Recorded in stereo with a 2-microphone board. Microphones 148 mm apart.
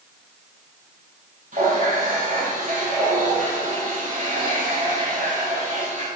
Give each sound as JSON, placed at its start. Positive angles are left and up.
{"t": 1.5, "sound": "a running tap", "side_deg": -65, "distance_m": 4.0}